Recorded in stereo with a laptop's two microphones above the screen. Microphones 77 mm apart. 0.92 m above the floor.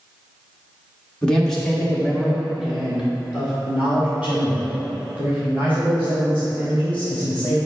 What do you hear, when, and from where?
1.2 s a man speaking: 10° left (ahead or behind), 1.3 m; by 7.5 s 25° right (ahead or behind), 4.5 m